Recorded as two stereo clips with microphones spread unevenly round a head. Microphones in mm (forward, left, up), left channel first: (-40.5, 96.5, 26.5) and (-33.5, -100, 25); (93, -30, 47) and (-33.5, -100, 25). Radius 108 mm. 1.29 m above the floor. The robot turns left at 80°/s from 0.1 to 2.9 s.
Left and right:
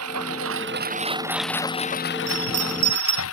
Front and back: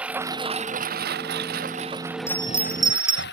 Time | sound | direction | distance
0.0 | a lawn mower | 70° right | ?
2.3 | a bell | 40° right | ?